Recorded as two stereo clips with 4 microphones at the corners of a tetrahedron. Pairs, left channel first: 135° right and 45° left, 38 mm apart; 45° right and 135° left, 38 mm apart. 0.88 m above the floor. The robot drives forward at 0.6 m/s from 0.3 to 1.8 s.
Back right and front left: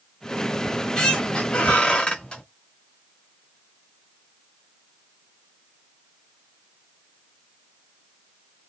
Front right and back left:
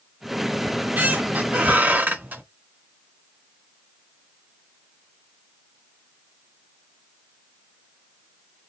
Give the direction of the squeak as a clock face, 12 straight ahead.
7 o'clock.